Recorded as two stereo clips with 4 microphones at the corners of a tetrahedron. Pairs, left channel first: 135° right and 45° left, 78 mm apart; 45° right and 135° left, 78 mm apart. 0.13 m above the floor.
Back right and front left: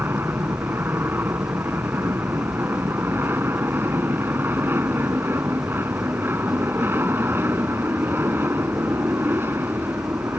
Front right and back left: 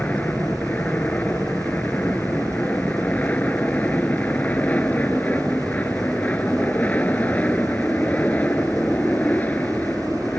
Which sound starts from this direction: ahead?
An aircraft, at 0.0 s.